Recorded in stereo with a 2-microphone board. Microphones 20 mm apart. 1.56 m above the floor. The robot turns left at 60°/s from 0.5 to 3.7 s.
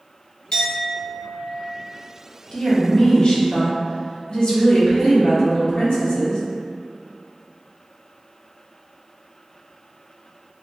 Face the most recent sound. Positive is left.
turn(degrees=70)